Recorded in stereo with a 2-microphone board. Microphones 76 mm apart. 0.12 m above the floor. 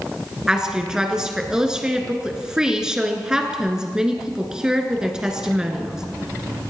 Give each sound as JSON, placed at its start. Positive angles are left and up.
{"t": 0.5, "sound": "a woman speaking", "side_deg": -10, "distance_m": 1.4}